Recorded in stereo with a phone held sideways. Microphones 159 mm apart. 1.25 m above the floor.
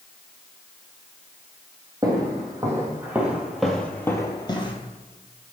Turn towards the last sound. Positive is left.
turn(degrees=35)  # may be behind; listen again after turning